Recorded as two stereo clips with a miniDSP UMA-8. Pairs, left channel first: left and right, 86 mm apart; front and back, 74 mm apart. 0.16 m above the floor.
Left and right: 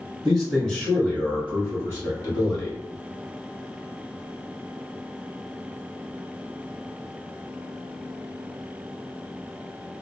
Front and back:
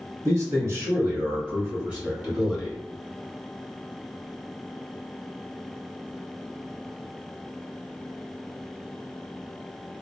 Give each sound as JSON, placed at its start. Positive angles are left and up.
{"t": 0.2, "sound": "a man speaking", "azimuth_deg": 175, "distance_m": 1.9}